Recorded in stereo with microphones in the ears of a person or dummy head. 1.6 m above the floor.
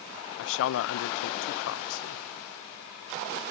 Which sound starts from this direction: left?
A man speaking, at 0.4 s.